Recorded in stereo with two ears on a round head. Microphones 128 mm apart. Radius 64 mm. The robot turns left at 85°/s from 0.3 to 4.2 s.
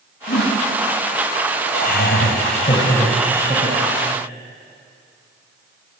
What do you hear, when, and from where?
0.3 s a whoosh: 70° left (ahead or behind), 5.5 m; by 0.6 s 50° left (ahead or behind), 5.5 m
1.7 s laughter: 120° left, 4 m; by 4.0 s 75° right, 4 m